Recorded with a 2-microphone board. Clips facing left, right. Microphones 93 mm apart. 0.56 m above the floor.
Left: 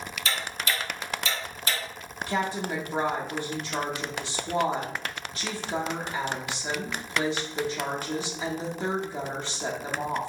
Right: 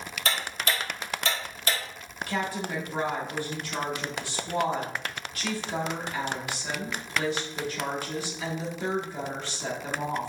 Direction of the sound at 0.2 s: 55° right (ahead or behind).